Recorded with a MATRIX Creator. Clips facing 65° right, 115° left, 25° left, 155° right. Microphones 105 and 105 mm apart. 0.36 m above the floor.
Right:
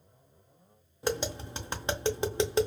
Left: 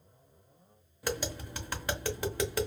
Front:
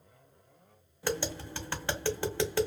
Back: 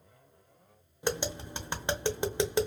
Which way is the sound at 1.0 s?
105° right.